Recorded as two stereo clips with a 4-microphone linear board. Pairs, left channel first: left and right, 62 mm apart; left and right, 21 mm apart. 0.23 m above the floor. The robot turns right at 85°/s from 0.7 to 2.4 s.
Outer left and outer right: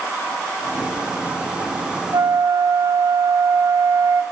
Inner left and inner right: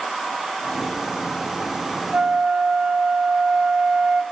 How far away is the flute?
About 5 m.